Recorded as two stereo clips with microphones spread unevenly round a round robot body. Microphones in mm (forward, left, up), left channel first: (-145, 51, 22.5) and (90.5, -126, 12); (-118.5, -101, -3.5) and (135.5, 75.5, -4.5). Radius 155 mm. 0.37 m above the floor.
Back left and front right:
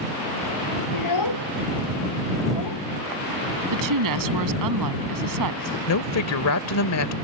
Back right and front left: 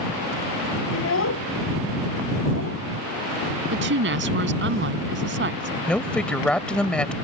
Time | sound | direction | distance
0.9 | a child speaking | 165° left | ?
3.7 | a woman speaking | 20° right | ?
5.9 | a woman speaking | 130° left | ?